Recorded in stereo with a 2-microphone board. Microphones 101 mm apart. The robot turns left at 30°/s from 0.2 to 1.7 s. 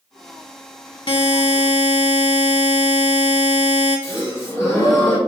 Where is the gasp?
30° left (ahead or behind), 1.7 m.